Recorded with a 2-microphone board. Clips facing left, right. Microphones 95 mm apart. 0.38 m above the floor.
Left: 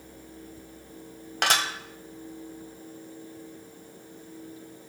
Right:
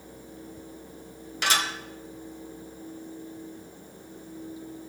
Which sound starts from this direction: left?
Dishes clattering, at 1.4 s.